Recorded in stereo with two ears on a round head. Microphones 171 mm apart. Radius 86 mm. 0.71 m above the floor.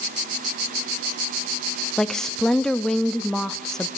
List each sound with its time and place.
2.0 s a woman speaking: 5° left (ahead or behind), 0.5 m